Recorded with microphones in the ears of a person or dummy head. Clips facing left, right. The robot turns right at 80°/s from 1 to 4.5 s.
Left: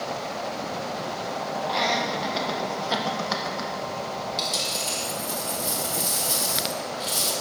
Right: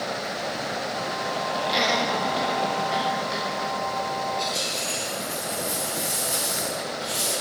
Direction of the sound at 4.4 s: 50° left (ahead or behind).